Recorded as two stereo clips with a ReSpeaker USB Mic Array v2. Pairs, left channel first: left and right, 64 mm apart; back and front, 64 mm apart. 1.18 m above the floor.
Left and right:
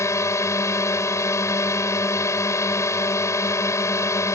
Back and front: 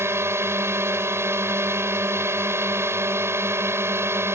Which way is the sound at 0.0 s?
50° left.